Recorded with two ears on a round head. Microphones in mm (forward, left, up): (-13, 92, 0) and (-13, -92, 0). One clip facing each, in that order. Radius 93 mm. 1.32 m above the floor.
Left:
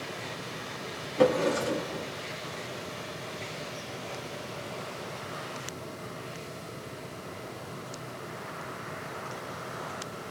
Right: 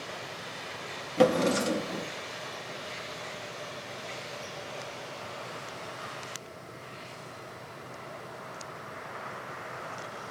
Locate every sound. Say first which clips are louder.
1.2 s a drawer: even; 35° right (ahead or behind), 0.8 m